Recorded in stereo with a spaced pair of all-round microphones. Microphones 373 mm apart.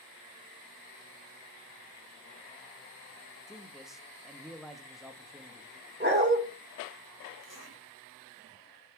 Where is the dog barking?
30° right (ahead or behind), 1.5 m.